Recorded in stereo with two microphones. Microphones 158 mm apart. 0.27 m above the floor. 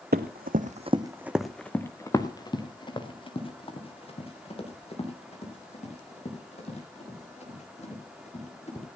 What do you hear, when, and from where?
0.1 s running footsteps: 80° right, 1.3 m; by 8.8 s 45° left (ahead or behind), 10.5 m